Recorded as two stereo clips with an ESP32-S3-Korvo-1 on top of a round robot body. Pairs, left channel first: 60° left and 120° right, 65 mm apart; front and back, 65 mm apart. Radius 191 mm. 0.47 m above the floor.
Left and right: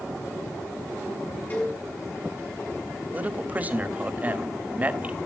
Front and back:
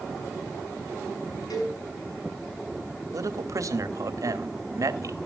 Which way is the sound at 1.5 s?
Straight ahead.